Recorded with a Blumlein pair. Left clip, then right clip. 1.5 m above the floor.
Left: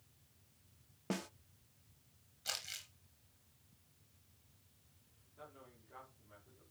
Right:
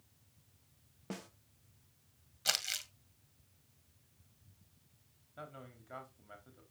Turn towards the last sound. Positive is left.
turn(degrees=-55)